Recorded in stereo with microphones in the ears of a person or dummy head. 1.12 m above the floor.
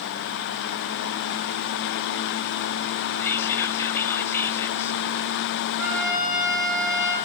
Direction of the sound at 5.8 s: 60° right (ahead or behind).